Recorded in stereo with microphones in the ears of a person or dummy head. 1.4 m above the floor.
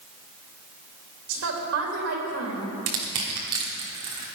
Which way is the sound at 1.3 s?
70° right (ahead or behind).